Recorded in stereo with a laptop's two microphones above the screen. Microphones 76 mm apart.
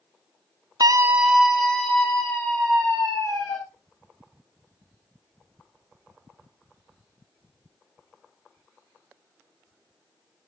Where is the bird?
I don't hear a bird.